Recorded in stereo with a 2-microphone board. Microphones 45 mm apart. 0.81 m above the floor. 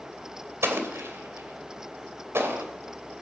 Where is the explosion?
75° right (ahead or behind), 2.5 m.